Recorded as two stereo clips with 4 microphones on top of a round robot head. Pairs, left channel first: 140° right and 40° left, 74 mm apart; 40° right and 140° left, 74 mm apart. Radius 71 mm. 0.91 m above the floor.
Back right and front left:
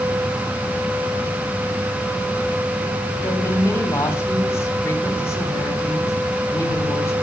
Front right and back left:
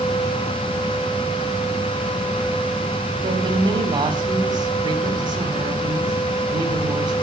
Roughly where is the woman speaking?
Behind.